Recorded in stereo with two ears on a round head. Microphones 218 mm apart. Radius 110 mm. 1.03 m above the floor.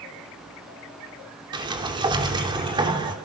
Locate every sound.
1.5 s a sliding door: 20° right (ahead or behind), 3.5 m